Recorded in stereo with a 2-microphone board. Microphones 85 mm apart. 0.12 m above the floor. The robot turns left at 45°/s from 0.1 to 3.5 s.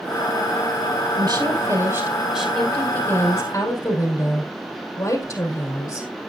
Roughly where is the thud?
I don't hear a thud.